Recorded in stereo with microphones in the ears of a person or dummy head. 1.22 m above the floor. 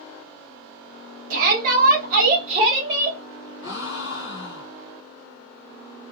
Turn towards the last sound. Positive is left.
turn(degrees=75)  # may be behind; listen again after turning